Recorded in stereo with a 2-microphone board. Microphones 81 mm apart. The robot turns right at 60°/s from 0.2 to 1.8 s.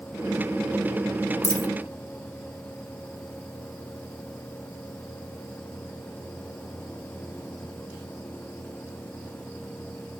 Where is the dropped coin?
35° left (ahead or behind), 0.6 m.